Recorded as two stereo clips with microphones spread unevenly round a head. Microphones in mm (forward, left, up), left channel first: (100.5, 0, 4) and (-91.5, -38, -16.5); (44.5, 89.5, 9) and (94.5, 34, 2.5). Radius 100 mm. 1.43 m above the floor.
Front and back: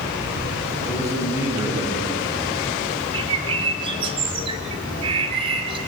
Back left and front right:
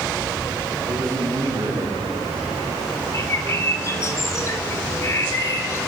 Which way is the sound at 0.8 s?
95° right.